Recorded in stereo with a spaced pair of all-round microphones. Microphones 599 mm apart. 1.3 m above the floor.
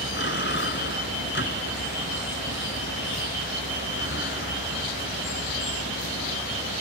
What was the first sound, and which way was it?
A vehicle, 15° left (ahead or behind).